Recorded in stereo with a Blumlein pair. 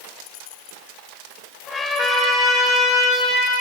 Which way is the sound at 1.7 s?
20° left.